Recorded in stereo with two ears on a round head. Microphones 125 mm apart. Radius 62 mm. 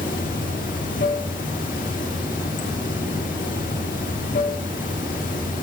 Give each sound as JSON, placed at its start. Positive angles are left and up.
{"t": 0.0, "sound": "running water", "side_deg": 65, "distance_m": 2.0}